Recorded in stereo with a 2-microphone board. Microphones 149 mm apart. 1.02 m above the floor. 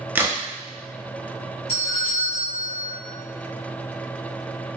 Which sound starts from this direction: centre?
A crack, at 0.1 s.